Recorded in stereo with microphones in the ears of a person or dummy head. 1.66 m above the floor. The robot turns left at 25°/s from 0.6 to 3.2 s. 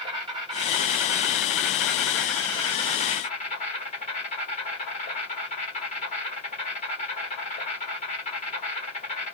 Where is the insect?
155° right, 1.2 m; by 9.3 s 140° left, 1.2 m.